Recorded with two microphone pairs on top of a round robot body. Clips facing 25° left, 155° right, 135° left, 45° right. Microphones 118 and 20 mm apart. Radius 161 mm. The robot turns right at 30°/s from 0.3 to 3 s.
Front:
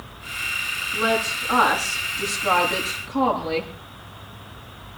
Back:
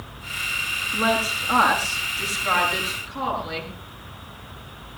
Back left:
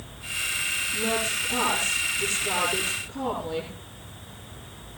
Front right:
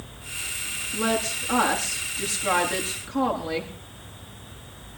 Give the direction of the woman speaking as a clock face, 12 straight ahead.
3 o'clock.